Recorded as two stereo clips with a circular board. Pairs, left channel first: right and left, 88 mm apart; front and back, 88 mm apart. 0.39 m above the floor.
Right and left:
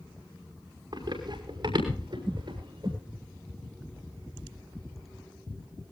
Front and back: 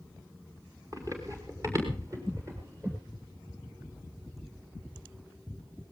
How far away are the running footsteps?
About 5.5 m.